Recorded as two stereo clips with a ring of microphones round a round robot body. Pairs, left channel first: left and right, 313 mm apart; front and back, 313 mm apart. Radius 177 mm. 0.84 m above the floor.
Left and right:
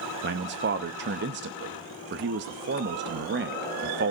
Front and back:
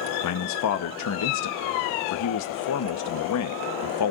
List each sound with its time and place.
0.2 s a man speaking: 35° right, 0.8 m